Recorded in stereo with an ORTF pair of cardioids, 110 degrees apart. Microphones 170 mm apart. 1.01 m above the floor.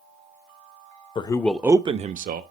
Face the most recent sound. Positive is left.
turn(degrees=-60)